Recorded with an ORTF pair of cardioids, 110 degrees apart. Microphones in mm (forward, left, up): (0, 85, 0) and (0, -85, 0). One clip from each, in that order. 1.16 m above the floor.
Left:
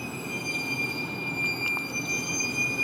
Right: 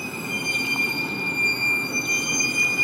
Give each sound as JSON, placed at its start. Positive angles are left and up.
{"t": 0.0, "sound": "a vehicle", "azimuth_deg": -40}